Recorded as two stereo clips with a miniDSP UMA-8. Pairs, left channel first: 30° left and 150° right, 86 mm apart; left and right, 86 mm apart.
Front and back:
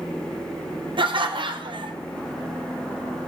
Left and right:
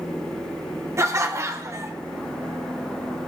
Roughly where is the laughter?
Behind right.